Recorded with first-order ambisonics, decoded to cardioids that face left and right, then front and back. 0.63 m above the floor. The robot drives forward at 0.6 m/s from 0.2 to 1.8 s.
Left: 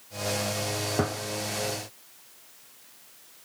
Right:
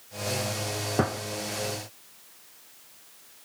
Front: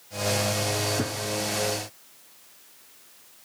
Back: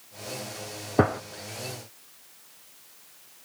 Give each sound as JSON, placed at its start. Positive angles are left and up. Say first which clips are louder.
{"t": 1.0, "sound": "a gunshot", "louder": "right 3 dB, back 7 dB", "azimuth_deg": -175, "distance_m": 0.7}